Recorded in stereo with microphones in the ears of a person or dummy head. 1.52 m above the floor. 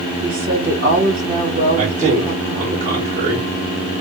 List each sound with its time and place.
0.2 s a woman speaking: 60° right (ahead or behind), 2 m
1.8 s a man speaking: 40° right (ahead or behind), 1.6 m